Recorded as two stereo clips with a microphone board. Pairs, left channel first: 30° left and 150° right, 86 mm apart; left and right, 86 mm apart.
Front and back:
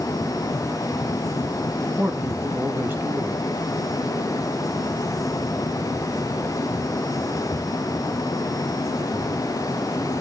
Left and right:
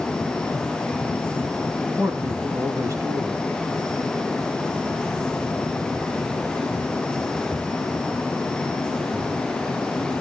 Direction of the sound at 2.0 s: 105° right.